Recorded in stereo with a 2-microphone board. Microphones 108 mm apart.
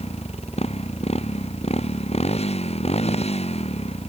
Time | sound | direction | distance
0.0 | a motorcycle | 80° left | ?